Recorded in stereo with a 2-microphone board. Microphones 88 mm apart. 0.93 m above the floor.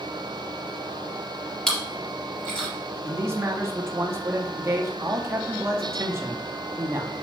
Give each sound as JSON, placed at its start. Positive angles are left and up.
{"t": 1.7, "sound": "chewing", "side_deg": 10, "distance_m": 3.5}
{"t": 3.0, "sound": "a man speaking", "side_deg": -30, "distance_m": 1.2}